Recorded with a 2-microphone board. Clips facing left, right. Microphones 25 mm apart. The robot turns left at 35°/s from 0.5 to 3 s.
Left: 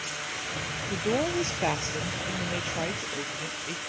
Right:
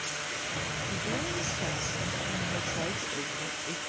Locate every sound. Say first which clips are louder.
0.9 s a woman speaking: left 9 dB; 90° left; by 3.8 s 15° left